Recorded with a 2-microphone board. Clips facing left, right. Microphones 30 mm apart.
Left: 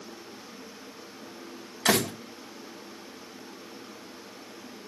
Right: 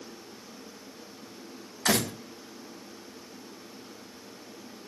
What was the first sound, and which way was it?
A door slam, 70° left (ahead or behind).